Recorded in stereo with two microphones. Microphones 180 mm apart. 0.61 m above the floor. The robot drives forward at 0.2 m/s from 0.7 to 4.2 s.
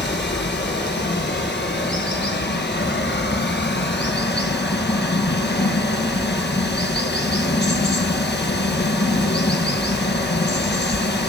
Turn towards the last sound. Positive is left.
turn(degrees=80)